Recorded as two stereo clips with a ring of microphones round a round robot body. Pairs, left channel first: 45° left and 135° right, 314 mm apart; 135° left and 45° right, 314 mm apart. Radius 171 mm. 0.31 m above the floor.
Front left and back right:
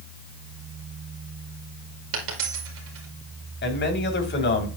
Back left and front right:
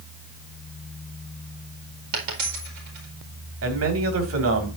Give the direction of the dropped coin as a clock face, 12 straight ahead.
3 o'clock.